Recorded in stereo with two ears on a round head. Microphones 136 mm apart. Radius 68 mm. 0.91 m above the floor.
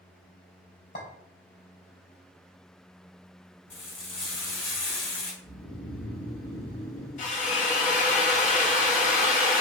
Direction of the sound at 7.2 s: 50° left (ahead or behind).